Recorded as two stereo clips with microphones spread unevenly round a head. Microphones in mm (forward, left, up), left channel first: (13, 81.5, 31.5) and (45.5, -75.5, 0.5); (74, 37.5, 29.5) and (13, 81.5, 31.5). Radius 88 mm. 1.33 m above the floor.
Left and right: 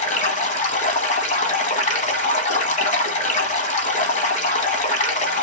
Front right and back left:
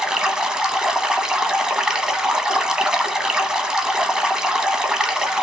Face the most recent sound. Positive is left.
turn(degrees=65)